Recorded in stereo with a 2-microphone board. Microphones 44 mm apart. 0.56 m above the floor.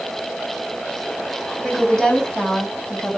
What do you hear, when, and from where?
1.6 s a woman speaking: 10° left (ahead or behind), 4 m; by 3.2 s 15° left (ahead or behind), 3 m